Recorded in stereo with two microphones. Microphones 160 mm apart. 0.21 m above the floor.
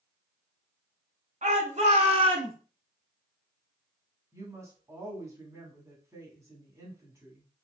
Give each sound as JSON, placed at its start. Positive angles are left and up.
{"t": 1.4, "sound": "a shout", "side_deg": -55, "distance_m": 1.5}
{"t": 4.3, "sound": "a woman speaking", "side_deg": -20, "distance_m": 1.7}